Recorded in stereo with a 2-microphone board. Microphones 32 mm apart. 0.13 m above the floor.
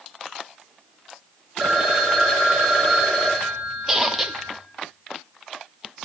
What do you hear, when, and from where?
1.6 s a phone ringing: centre (ahead or behind), 4 m
3.9 s a squeak: 10° right (ahead or behind), 0.9 m